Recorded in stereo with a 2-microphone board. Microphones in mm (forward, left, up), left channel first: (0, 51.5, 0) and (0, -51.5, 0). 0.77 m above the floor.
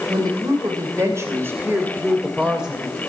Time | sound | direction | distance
0.1 | a woman speaking | 40° right (ahead or behind) | 3 m